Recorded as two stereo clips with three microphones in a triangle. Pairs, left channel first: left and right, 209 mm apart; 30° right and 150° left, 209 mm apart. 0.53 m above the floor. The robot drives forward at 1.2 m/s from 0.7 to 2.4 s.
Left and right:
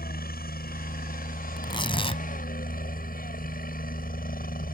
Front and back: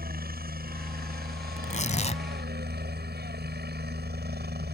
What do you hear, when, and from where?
0.0 s a helicopter: 120° left; by 4.7 s 125° left
1.6 s tearing paper: 20° left; by 2.2 s 25° left